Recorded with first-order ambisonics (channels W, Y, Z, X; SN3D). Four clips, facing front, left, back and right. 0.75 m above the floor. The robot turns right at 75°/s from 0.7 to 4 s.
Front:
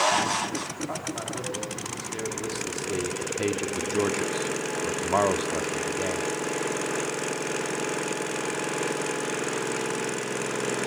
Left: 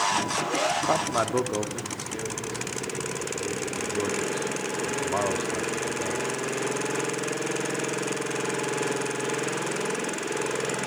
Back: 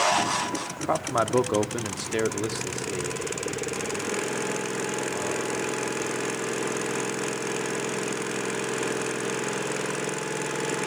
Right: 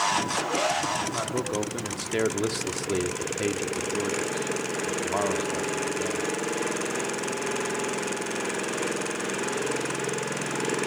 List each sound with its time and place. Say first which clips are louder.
0.8 s a man speaking: left 3 dB, back 7 dB; 120° left, 1.4 m; by 6.2 s 5° left, 1.4 m